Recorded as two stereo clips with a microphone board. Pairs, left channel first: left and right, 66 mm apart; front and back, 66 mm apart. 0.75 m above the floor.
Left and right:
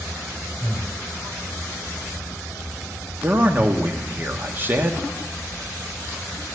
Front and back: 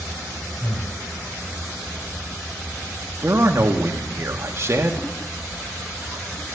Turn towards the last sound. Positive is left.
turn(degrees=-140)